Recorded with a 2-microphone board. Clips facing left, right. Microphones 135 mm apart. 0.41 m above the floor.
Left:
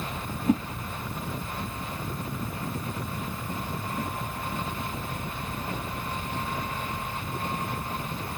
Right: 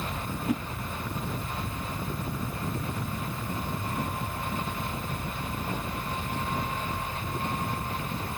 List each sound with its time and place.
0.5 s a whoosh: 30° left (ahead or behind), 0.6 m